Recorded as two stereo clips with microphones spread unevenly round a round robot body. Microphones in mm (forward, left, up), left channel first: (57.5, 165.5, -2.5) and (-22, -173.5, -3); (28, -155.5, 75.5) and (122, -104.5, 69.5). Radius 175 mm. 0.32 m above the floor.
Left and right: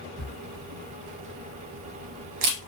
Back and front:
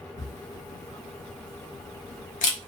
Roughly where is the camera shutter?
Behind right.